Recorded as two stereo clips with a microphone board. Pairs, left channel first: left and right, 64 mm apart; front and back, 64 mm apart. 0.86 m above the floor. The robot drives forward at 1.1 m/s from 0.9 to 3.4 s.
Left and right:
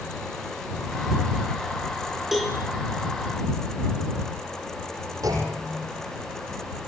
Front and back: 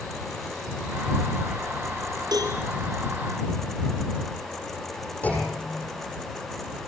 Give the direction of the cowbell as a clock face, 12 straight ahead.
6 o'clock.